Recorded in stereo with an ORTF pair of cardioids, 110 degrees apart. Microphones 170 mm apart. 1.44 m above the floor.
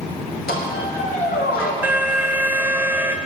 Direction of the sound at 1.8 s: 10° right.